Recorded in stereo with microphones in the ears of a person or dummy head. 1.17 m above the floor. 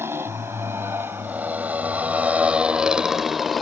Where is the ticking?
I don't hear ticking.